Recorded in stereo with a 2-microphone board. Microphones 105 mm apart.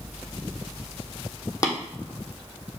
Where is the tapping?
30° left (ahead or behind), 1.2 m.